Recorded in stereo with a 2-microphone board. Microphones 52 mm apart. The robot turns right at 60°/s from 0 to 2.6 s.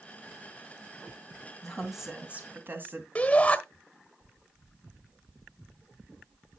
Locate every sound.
1.6 s a woman speaking: 170° left, 2.5 m; by 3.0 s 130° right, 2.5 m
3.1 s a shout: 25° left (ahead or behind), 1.2 m